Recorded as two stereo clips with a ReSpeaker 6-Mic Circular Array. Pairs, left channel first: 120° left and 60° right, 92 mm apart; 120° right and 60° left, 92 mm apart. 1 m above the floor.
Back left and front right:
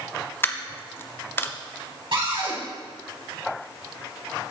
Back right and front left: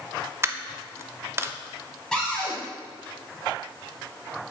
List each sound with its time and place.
0.4 s a dropped coin: 85° left, 0.5 m
2.1 s a cupboard door: 40° right, 3.5 m